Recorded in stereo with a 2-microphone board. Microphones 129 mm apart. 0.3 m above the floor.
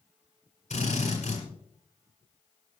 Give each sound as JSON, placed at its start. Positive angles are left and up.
{"t": 0.7, "sound": "a drill", "side_deg": 55, "distance_m": 8.0}